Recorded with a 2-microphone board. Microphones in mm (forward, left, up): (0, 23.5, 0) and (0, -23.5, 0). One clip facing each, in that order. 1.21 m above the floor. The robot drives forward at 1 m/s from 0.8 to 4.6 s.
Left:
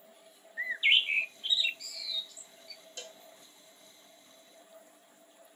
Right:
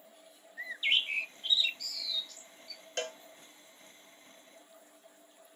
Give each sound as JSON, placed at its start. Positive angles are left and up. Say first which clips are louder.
{"t": 0.6, "sound": "a bird", "louder": "left 4 dB", "side_deg": 30}
{"t": 3.0, "sound": "a cowbell", "louder": "right 11 dB", "side_deg": -60}